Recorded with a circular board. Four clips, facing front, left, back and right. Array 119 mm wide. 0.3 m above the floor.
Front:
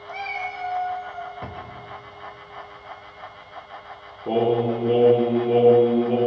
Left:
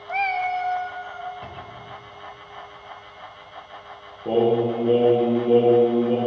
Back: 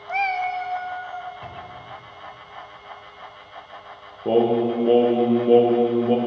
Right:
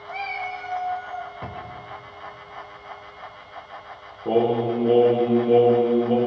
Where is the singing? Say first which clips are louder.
Left 1 dB, back 2 dB; 175° left, 3 m.